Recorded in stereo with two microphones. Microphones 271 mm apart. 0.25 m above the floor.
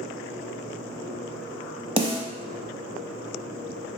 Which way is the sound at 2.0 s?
20° right (ahead or behind).